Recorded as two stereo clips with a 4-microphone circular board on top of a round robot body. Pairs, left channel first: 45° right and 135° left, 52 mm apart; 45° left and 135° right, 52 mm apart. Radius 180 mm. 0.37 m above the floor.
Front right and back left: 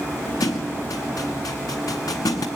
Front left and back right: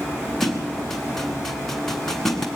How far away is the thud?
About 0.8 m.